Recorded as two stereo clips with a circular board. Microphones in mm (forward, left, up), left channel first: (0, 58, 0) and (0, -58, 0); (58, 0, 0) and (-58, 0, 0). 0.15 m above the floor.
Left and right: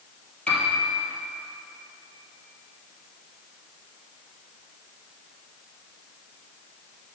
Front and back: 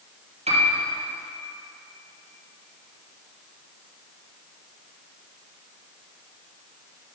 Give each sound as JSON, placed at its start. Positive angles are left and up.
{"t": 0.5, "sound": "a piano", "azimuth_deg": 170, "distance_m": 4.0}